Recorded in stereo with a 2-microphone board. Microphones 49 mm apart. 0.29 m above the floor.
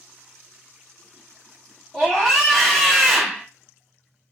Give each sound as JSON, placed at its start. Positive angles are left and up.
{"t": 1.9, "sound": "a scream", "side_deg": 10, "distance_m": 1.8}